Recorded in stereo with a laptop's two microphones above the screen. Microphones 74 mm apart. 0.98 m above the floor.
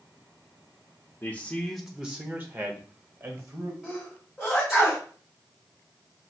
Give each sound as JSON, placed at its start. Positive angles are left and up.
{"t": 1.2, "sound": "a man speaking", "side_deg": 30, "distance_m": 0.5}
{"t": 3.8, "sound": "a sneeze", "side_deg": -10, "distance_m": 1.3}